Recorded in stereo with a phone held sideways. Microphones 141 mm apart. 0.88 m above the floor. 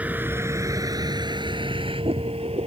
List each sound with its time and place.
0.0 s a vehicle: 10° right (ahead or behind); by 2.7 s 45° right (ahead or behind)